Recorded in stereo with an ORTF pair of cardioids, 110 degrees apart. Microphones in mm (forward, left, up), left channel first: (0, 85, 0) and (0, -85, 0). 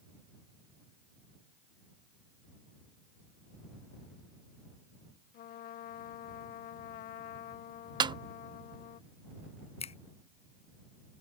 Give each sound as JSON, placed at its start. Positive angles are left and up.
{"t": 5.3, "sound": "a trumpet", "azimuth_deg": 60}
{"t": 8.0, "sound": "a snare drum", "azimuth_deg": -25}
{"t": 9.8, "sound": "a finger snap", "azimuth_deg": 35}